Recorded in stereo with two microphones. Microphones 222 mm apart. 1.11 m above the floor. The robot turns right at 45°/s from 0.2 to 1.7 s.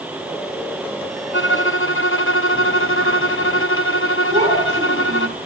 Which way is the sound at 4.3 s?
30° right (ahead or behind).